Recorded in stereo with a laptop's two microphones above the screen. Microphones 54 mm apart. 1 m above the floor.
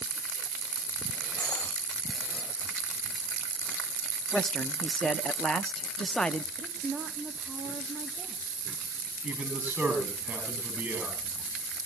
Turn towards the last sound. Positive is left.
turn(degrees=-50)  # may be behind; listen again after turning